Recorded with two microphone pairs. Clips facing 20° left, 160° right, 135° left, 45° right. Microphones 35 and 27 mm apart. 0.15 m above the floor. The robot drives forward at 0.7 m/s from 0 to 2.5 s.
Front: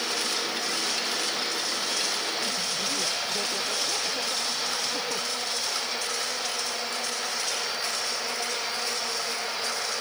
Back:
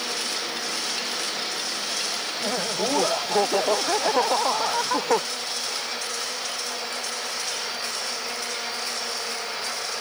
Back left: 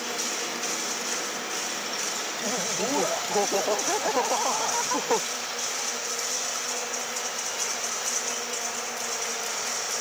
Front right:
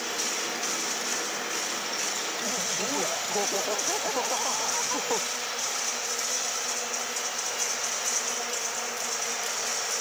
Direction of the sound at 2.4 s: 155° right.